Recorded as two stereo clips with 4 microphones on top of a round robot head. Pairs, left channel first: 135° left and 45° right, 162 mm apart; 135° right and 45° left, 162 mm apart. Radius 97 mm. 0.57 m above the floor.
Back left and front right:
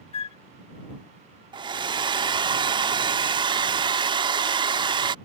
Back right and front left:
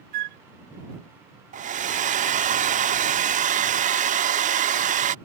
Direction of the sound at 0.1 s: 80° left.